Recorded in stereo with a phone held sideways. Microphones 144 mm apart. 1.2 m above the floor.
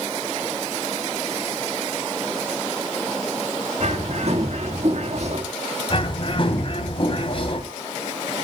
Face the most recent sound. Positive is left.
turn(degrees=40)  # may be behind; listen again after turning